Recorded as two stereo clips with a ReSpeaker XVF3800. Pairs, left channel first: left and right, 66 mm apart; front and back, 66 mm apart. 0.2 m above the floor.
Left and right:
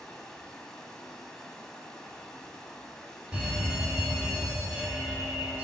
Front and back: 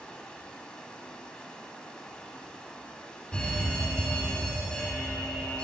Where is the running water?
30° left, 1.2 m.